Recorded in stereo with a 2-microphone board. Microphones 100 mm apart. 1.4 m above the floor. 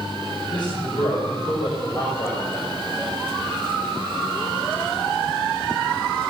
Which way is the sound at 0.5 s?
50° left (ahead or behind).